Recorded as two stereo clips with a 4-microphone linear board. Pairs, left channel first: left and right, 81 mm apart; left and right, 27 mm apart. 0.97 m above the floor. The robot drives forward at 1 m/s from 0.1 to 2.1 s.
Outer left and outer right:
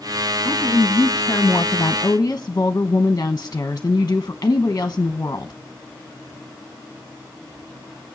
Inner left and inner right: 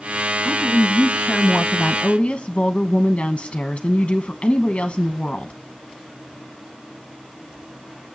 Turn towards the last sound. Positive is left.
turn(degrees=35)  # may be behind; listen again after turning